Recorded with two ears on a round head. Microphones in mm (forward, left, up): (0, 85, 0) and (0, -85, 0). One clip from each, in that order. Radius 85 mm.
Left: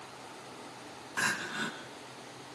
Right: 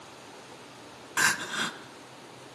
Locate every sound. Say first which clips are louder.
1.2 s crying: right 6 dB; 35° right (ahead or behind), 1.7 m